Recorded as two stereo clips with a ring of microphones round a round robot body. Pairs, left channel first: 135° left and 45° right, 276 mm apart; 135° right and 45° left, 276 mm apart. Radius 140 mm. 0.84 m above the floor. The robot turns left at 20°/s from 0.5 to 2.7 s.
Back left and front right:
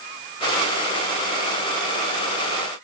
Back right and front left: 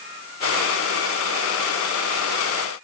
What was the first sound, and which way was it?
Only background noise.